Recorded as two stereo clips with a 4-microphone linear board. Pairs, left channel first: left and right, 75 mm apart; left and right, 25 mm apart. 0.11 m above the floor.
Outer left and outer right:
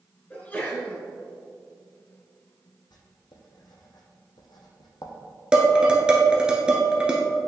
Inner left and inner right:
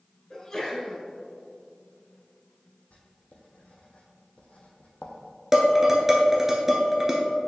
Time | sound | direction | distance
0.3 | a sneeze | 20° left (ahead or behind) | 1.5 m
2.9 | writing | 65° left (ahead or behind) | 1.2 m
5.5 | dishes clattering | 10° right (ahead or behind) | 1.1 m